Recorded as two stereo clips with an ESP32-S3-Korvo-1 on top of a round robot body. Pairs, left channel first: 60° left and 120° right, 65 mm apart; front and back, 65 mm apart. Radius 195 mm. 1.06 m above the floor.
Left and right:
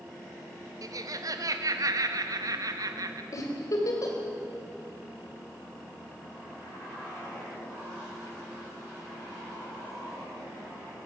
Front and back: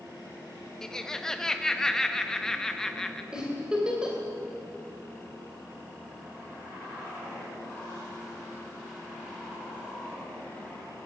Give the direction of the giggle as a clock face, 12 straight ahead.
9 o'clock.